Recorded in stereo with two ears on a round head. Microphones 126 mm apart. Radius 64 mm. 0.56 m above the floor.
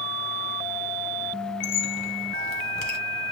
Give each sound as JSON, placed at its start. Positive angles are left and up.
{"t": 1.6, "sound": "a squeak", "side_deg": 60, "distance_m": 1.6}